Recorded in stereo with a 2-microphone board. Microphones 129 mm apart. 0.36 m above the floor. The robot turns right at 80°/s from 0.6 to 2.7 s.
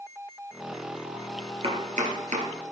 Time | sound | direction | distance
1.6 | chopping | 45° right (ahead or behind) | 2.5 m